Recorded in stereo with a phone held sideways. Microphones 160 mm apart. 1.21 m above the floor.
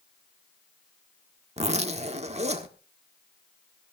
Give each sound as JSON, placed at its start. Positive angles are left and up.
{"t": 1.6, "sound": "a zipper", "side_deg": -40, "distance_m": 1.4}